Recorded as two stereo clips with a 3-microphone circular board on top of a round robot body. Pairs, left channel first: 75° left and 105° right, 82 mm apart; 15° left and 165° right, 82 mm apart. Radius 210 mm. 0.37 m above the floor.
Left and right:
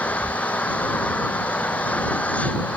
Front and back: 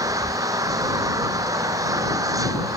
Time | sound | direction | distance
0.0 | an engine running | 150° left | ?